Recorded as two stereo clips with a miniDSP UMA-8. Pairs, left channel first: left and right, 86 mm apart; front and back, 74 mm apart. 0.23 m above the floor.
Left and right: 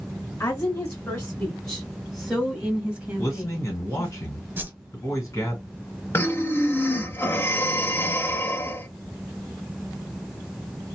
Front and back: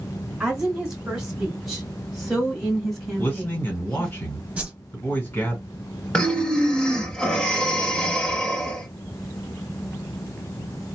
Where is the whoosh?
125° right, 1.0 m.